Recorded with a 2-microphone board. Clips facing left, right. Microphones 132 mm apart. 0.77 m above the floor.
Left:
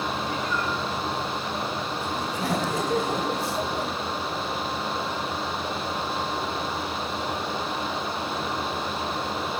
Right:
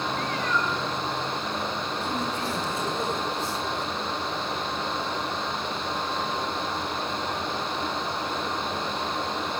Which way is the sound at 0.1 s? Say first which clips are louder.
Even; 85° right.